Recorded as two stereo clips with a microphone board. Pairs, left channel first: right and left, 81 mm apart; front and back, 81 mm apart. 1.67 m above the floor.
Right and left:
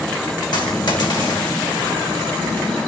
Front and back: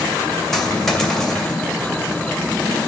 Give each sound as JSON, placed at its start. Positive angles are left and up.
{"t": 0.5, "sound": "a dropped coin", "azimuth_deg": -85, "distance_m": 2.5}